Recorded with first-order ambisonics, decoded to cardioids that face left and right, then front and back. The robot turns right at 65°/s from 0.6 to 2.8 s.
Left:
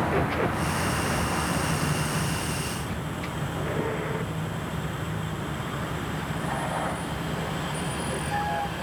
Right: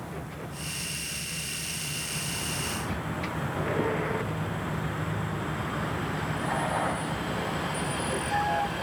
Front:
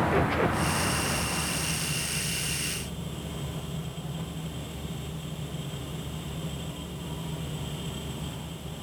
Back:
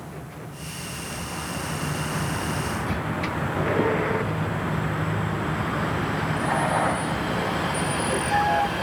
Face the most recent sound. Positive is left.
turn(degrees=-175)